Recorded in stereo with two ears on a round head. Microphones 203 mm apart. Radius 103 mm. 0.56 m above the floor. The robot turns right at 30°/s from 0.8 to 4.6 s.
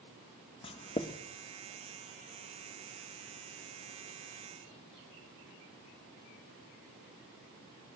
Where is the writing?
25° left (ahead or behind), 0.6 m; by 1.2 s 20° left (ahead or behind), 0.6 m.